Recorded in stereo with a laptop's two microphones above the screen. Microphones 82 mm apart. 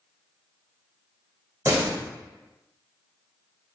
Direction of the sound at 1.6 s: 30° right (ahead or behind).